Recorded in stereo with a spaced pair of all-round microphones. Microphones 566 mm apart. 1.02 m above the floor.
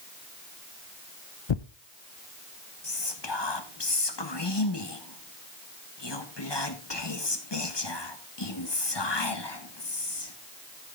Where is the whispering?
45° left (ahead or behind), 1.3 m.